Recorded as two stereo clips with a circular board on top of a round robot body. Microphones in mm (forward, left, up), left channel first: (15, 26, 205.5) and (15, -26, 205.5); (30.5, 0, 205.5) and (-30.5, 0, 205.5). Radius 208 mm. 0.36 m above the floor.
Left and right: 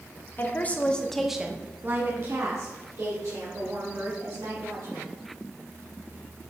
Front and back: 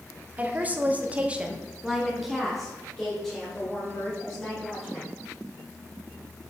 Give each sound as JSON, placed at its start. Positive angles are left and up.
{"t": 0.4, "sound": "a woman speaking", "azimuth_deg": 125, "distance_m": 1.4}